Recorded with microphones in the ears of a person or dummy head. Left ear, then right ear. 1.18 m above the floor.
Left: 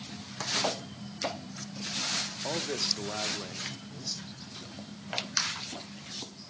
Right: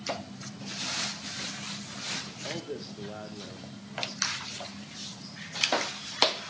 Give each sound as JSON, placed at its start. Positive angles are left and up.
{"t": 2.4, "sound": "a man speaking", "side_deg": 55, "distance_m": 1.2}